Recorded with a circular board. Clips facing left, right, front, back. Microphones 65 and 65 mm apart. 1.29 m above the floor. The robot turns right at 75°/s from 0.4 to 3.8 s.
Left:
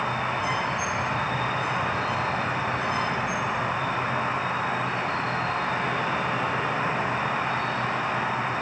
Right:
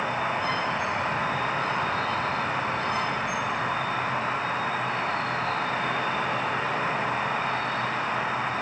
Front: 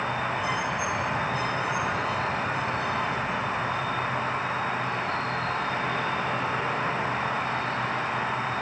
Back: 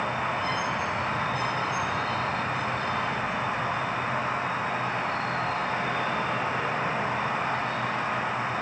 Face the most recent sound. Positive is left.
turn(degrees=165)